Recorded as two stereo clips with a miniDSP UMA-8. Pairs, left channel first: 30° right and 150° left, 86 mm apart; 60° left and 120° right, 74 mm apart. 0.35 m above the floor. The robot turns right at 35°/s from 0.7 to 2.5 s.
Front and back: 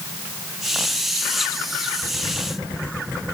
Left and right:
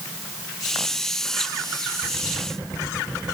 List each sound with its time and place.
Only background noise.